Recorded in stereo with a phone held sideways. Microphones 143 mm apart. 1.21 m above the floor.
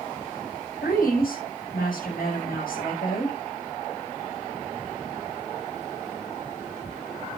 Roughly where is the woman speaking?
Left.